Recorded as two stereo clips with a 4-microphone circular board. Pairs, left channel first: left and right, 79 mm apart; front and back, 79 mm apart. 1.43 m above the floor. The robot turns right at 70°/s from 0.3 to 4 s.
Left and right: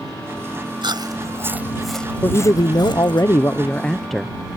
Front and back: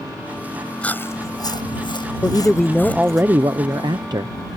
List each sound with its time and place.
0.8 s chewing: 75° right; by 3.2 s 95° left
2.2 s a man speaking: 50° left; by 4.4 s 175° left